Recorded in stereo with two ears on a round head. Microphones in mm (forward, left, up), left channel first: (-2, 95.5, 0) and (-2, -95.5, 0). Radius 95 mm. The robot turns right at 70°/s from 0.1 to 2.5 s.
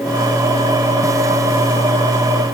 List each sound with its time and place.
Only background noise.